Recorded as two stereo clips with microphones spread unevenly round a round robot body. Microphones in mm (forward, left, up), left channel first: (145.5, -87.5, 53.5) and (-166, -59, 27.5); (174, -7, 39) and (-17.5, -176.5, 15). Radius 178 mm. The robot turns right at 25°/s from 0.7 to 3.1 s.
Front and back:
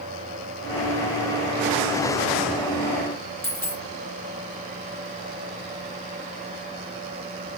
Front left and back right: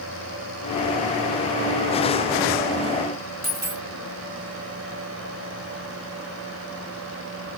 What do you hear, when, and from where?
3.4 s a dropped coin: 85° right, 4.5 m